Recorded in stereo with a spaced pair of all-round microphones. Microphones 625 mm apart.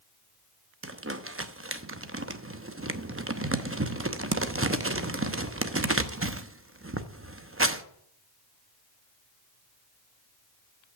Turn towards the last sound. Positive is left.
turn(degrees=-20)  # may be behind; listen again after turning